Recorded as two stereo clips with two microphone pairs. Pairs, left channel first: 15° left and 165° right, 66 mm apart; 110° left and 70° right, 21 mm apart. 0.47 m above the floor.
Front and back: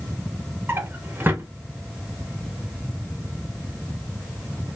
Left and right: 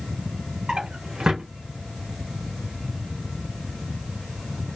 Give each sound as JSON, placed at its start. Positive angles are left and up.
{"t": 0.7, "sound": "a drawer", "azimuth_deg": -110, "distance_m": 0.6}